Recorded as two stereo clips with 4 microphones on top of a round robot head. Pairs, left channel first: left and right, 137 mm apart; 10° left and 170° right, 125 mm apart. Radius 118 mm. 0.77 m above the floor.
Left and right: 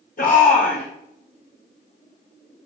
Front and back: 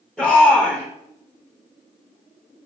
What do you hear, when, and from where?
0.2 s a shout: 100° left, 5.5 m